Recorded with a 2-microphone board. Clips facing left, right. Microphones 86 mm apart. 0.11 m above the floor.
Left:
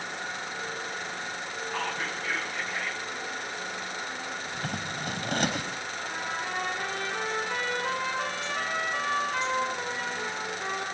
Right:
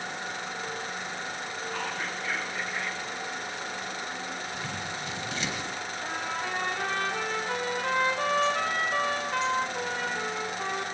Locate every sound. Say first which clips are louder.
1.7 s whispering: left 2 dB; centre (ahead or behind), 6.5 m
4.5 s scissors: left 1 dB; 45° left (ahead or behind), 3.5 m
6.0 s a trumpet: right 1 dB; 70° right (ahead or behind), 8.5 m